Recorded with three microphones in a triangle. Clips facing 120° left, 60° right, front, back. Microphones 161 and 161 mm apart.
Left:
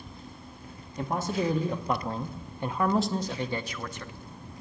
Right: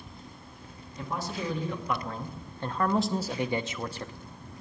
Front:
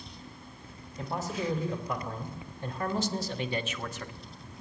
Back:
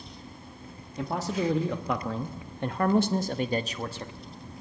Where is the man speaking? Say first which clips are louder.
Left 5 dB, back 5 dB; 160° left, 1.5 m; by 4.1 s 115° right, 1.1 m.